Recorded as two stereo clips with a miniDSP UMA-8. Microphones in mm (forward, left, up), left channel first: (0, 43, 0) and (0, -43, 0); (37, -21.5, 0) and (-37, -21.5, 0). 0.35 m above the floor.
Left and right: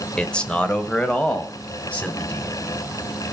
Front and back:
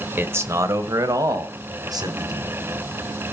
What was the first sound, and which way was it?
A man speaking, 160° left.